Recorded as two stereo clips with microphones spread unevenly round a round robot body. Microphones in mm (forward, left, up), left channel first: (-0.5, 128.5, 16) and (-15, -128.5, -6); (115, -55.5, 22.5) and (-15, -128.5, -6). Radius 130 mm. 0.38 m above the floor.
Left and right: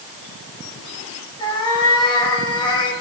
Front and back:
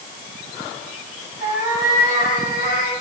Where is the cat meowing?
160° left, 4.5 m.